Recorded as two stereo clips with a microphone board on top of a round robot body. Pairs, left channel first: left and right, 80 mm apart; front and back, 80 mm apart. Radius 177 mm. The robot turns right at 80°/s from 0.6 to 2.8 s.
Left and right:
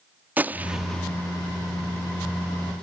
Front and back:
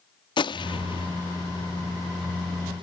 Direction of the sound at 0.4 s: 20° right.